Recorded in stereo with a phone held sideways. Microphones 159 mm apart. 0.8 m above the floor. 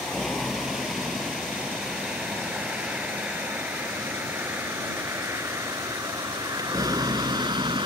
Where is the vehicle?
Centre (ahead or behind); by 7.9 s 30° right (ahead or behind).